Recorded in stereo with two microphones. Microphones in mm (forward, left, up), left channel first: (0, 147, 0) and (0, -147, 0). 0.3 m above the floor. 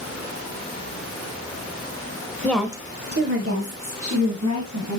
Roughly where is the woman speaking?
Centre.